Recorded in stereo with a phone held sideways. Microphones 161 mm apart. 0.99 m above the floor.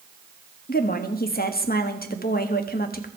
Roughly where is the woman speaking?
Left.